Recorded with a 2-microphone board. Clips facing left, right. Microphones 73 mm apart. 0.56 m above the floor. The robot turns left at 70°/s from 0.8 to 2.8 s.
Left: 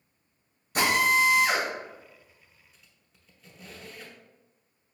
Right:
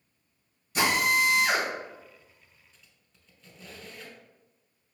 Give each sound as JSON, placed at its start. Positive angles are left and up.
{"t": 0.8, "sound": "a drill", "azimuth_deg": 45, "distance_m": 1.9}
{"t": 2.7, "sound": "a squeak", "side_deg": 5, "distance_m": 1.0}